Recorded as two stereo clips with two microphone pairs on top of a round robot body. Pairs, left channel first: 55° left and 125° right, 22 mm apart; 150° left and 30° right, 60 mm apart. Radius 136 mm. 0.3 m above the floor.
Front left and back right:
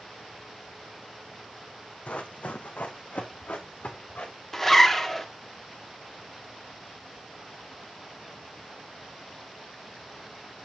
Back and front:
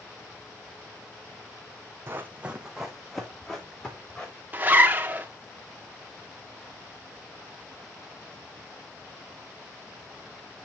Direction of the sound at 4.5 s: 5° right.